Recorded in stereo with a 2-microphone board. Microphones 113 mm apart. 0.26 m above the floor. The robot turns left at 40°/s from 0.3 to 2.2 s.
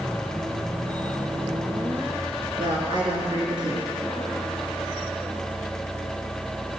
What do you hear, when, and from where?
2.6 s a woman speaking: 45° right (ahead or behind), 3.5 m